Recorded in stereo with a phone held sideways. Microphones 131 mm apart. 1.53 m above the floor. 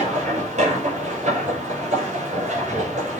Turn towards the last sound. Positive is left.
turn(degrees=-75)  # may be behind; listen again after turning